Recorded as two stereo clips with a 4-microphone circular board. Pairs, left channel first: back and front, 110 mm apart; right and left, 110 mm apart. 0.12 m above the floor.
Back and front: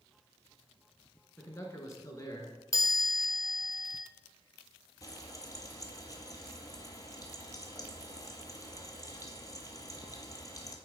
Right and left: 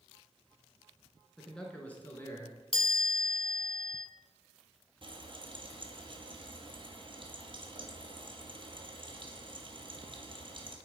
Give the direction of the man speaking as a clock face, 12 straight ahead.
6 o'clock.